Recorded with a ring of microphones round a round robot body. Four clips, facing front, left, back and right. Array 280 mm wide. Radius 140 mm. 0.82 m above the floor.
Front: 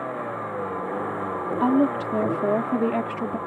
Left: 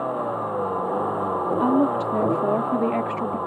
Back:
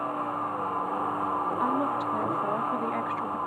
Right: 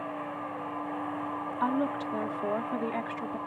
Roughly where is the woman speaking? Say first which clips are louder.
Left 8 dB, front 10 dB; ahead left.